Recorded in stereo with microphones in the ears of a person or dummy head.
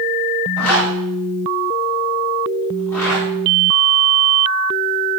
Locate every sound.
0.6 s a zipper: 10° left (ahead or behind), 9 m